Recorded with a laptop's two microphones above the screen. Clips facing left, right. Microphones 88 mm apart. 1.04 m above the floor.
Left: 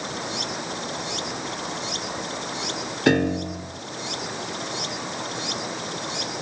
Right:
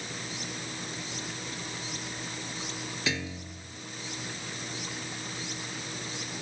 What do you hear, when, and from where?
0.0 s running water: 80° left
3.1 s a piano: 60° left (ahead or behind)